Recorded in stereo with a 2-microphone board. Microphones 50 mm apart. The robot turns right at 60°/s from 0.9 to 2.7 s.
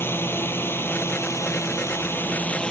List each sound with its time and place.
0.0 s a drone: 55° left; by 2.7 s 165° left